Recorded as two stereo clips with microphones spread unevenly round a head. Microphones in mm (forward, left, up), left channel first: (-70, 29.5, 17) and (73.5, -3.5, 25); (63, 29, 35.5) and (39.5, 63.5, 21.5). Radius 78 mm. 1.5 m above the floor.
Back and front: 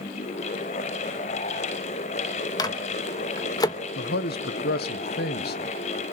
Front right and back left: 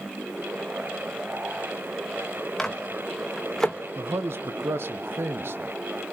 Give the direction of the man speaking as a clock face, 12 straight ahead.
7 o'clock.